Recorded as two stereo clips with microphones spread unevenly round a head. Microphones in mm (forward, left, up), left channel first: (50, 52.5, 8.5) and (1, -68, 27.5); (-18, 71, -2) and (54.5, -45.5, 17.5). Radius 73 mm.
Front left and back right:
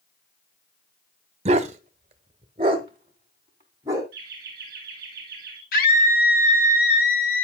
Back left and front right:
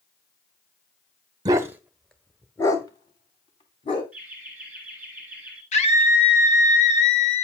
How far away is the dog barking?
About 1.0 m.